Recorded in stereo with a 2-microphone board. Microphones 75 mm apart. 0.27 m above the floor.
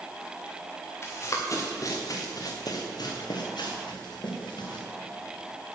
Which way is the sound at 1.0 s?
35° left (ahead or behind).